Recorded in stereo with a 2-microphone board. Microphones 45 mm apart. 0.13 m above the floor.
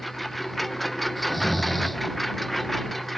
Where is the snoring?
Centre (ahead or behind).